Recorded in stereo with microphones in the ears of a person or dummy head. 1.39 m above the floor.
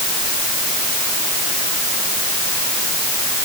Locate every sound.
Only background noise.